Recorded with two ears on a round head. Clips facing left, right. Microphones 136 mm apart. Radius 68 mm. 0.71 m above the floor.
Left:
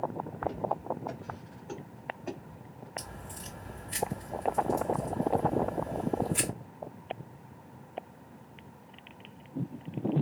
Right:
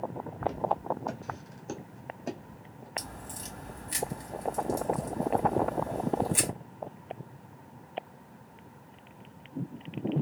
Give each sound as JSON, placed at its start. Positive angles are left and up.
{"t": 0.4, "sound": "footsteps", "side_deg": -55, "distance_m": 1.2}
{"t": 3.0, "sound": "a crack", "side_deg": -70, "distance_m": 2.0}